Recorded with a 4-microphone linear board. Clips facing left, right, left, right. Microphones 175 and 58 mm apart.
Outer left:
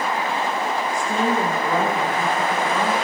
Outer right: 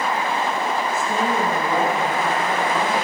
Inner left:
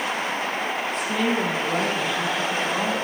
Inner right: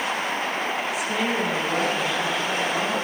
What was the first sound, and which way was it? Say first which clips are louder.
A woman speaking: outer left 3 dB, inner left 3 dB; 5° right (ahead or behind).